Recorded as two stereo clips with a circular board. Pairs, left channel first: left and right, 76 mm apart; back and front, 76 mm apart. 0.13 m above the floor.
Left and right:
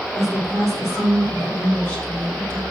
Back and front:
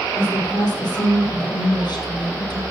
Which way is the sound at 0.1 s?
145° left.